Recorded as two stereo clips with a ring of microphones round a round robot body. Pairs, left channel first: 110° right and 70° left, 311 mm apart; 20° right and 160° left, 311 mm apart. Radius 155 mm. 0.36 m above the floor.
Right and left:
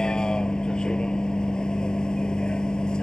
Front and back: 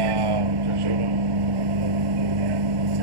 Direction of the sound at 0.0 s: 160° left.